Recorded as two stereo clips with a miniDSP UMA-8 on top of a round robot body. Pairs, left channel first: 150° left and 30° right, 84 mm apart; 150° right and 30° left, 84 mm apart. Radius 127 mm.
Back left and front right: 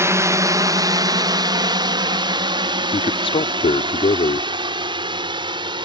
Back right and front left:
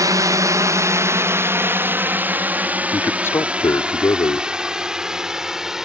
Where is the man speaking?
145° left.